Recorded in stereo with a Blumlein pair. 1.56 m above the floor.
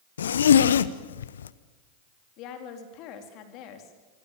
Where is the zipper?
65° left, 0.9 m.